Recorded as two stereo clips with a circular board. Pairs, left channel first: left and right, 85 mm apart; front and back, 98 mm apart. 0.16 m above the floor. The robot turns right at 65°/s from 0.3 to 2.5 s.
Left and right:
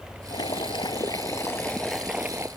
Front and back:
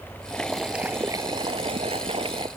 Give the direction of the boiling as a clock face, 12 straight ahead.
10 o'clock.